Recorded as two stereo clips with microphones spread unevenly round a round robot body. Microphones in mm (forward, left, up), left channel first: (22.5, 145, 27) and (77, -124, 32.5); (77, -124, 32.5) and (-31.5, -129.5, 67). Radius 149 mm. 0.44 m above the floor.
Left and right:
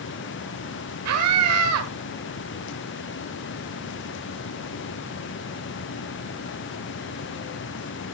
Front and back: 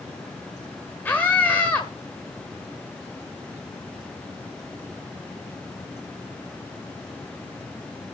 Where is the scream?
60° right, 1.6 m.